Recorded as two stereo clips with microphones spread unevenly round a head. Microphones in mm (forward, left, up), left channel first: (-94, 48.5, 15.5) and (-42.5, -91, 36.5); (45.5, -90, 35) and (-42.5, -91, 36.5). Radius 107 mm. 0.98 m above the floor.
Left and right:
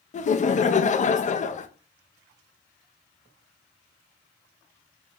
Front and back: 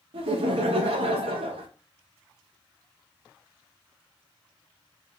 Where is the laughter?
150° left, 0.6 m.